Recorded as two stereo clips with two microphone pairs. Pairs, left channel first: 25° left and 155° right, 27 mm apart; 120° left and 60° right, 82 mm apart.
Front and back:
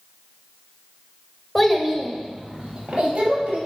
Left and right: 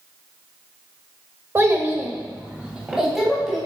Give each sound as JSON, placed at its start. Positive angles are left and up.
{"t": 1.6, "sound": "a child speaking", "azimuth_deg": -50, "distance_m": 1.0}